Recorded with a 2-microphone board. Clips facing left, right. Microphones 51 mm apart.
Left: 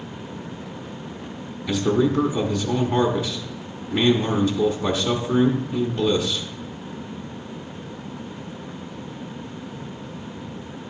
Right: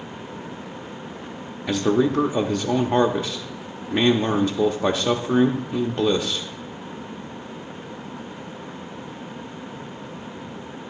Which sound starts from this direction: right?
A man speaking, at 1.7 s.